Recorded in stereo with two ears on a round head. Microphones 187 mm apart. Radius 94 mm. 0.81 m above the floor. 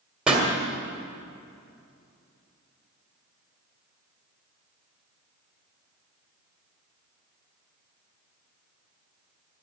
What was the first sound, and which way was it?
A pop, 5° right (ahead or behind).